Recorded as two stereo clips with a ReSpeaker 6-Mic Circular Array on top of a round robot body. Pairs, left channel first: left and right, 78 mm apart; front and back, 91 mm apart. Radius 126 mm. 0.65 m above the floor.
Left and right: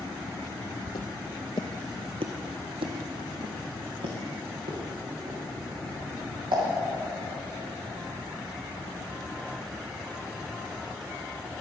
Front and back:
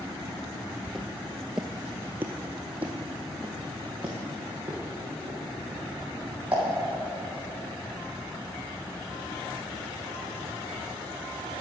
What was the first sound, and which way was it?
Footsteps, 85° left.